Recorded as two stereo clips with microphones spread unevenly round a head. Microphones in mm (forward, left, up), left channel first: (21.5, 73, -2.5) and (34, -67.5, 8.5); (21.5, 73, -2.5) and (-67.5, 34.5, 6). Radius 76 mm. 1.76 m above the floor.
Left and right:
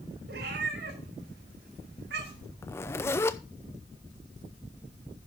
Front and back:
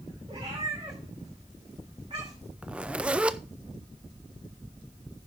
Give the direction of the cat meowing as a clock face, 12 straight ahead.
3 o'clock.